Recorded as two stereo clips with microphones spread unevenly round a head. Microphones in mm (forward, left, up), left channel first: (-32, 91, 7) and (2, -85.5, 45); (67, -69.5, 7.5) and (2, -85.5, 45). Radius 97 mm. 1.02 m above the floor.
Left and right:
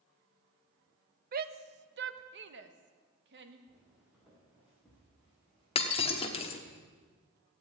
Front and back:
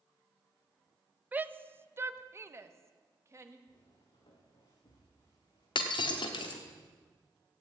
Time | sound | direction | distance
1.3 | a shout | 70° right | 0.8 m
3.7 | footsteps | straight ahead | 5 m
5.8 | breaking glass | 35° left | 1.2 m